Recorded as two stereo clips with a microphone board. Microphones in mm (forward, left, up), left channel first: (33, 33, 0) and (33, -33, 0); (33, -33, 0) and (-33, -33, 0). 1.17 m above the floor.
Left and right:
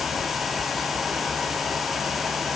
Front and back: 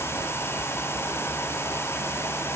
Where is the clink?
No clink in this recording.